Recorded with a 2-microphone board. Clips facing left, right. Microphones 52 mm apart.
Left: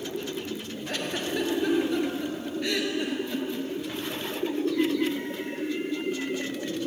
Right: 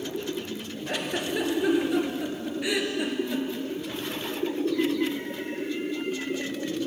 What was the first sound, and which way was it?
A giggle, 10° right (ahead or behind).